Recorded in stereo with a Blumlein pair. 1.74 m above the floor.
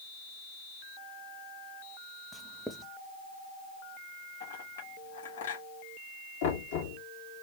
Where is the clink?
65° left, 2.5 m.